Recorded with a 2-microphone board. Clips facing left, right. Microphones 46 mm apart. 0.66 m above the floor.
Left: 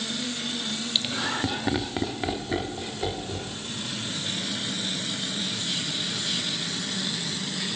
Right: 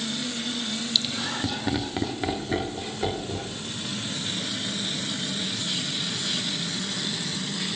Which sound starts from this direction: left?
Laughter, at 0.9 s.